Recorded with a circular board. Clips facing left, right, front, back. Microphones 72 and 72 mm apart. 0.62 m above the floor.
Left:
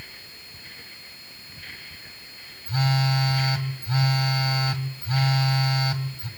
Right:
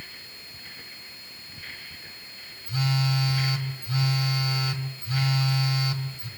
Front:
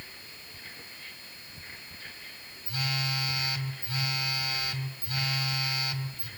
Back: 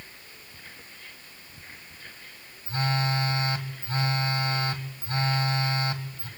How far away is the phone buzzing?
About 1.8 m.